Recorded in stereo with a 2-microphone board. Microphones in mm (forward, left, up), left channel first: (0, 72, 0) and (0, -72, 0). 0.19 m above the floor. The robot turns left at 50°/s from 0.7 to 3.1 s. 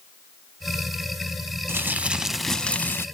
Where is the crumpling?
145° right, 0.6 m; by 3.0 s 145° left, 0.6 m.